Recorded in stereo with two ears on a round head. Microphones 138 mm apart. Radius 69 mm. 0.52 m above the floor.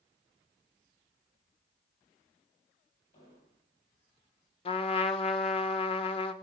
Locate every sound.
3.1 s an explosion: 45° left (ahead or behind), 9 m
4.7 s a trumpet: 40° left (ahead or behind), 1.1 m